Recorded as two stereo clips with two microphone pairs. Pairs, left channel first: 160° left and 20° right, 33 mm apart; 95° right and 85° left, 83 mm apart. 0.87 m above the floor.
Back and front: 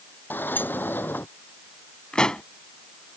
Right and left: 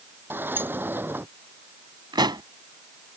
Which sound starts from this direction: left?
A pop, at 2.1 s.